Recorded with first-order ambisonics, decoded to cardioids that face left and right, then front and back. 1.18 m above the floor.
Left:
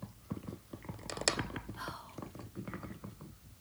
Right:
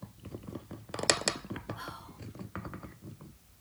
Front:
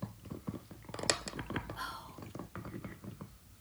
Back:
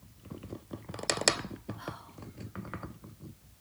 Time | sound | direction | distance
1.8 | whispering | 50° right | 4 m